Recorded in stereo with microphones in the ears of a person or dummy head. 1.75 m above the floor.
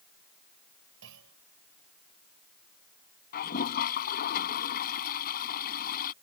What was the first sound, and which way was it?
A clunk, 70° right (ahead or behind).